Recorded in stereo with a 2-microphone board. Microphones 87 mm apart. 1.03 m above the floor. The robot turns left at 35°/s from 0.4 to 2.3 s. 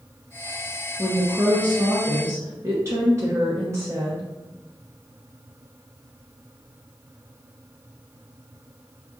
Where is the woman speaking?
5° left, 0.8 m; by 4.3 s 40° right, 0.8 m.